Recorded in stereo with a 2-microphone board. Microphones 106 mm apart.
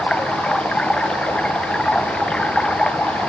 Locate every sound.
0.0 s running water: 10° left (ahead or behind)